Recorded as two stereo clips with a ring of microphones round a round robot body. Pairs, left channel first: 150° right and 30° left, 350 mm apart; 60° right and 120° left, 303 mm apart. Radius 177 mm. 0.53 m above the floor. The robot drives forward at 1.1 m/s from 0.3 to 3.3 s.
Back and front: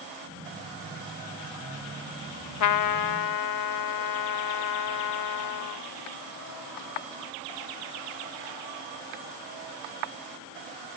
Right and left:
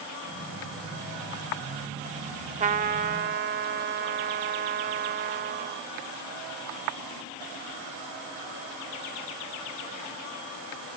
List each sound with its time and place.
2.6 s a trumpet: 175° right; by 5.9 s straight behind